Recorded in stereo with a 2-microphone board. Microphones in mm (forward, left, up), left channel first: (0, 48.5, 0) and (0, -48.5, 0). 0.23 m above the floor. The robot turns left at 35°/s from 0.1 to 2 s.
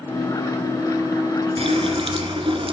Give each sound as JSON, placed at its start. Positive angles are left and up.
{"t": 1.6, "sound": "a running tap", "side_deg": -70, "distance_m": 2.0}